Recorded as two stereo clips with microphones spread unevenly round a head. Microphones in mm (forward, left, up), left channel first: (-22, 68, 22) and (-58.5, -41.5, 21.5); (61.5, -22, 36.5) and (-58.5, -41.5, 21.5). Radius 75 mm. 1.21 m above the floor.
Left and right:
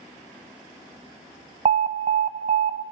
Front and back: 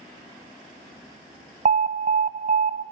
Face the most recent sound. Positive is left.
turn(degrees=-145)